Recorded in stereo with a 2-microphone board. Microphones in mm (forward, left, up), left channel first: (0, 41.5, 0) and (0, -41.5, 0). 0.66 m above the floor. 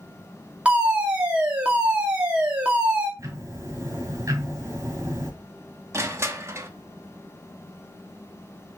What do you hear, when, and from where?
0.7 s a fire alarm: 15° right (ahead or behind), 2 m
3.2 s ticking: 40° right (ahead or behind), 3 m
5.9 s crushing: 35° right (ahead or behind), 0.9 m